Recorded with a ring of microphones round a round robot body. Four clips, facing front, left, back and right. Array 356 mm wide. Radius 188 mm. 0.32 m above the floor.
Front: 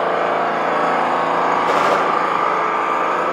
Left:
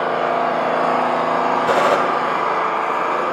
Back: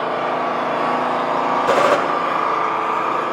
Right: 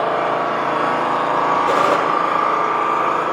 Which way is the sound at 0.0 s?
75° right.